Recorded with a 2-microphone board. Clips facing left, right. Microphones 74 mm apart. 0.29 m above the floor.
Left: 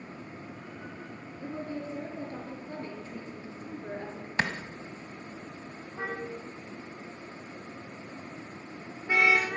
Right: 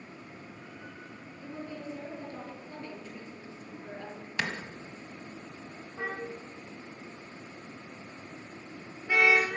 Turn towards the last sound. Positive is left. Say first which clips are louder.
# left 1 dB
turn(degrees=20)  # may be behind; listen again after turning